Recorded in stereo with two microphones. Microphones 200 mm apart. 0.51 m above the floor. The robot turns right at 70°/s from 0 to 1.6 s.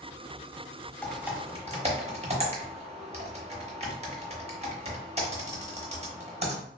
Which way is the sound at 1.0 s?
10° left (ahead or behind).